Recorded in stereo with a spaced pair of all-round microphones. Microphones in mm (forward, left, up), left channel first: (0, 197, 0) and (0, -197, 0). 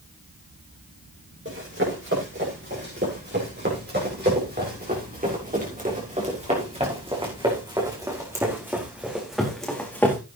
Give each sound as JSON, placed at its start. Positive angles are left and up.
{"t": 1.4, "sound": "running footsteps", "side_deg": -30, "distance_m": 8.5}